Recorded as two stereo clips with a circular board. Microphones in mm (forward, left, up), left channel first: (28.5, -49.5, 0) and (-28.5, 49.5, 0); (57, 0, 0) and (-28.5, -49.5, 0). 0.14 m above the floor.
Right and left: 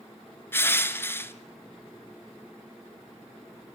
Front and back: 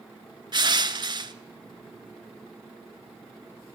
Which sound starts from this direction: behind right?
Crushing, at 0.5 s.